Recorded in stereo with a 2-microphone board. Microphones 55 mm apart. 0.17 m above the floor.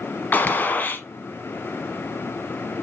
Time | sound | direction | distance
0.3 | a gunshot | 35° left (ahead or behind) | 1.0 m